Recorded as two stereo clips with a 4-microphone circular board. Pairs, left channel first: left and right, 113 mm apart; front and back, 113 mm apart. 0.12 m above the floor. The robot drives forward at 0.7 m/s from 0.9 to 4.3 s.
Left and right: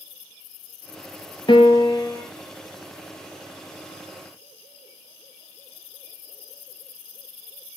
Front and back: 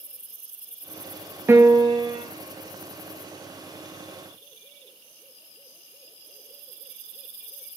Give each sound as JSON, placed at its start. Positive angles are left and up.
{"t": 1.5, "sound": "a piano", "azimuth_deg": 115, "distance_m": 0.5}